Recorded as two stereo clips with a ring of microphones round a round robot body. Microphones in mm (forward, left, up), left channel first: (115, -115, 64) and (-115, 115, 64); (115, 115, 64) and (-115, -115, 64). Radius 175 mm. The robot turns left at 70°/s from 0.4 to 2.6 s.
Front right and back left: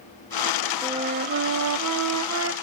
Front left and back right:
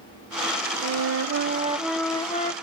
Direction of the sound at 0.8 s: 145° right.